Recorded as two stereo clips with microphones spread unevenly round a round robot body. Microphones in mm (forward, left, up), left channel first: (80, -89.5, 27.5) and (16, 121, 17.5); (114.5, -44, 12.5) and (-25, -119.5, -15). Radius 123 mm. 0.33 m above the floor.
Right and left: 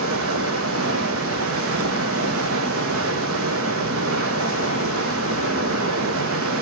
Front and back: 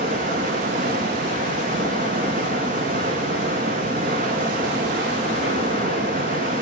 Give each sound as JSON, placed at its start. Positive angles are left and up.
{"t": 0.0, "sound": "running water", "azimuth_deg": 150, "distance_m": 1.3}